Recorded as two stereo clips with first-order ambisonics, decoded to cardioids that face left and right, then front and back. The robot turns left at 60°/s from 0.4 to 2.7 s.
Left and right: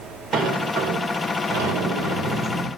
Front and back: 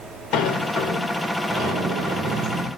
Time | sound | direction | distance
0.3 | a sliding door | 35° right | 2.5 m